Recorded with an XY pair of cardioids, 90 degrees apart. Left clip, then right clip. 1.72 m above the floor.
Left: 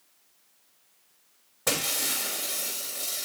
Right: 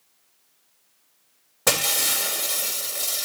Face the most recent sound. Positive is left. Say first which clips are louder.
# right 6 dB
turn(degrees=-55)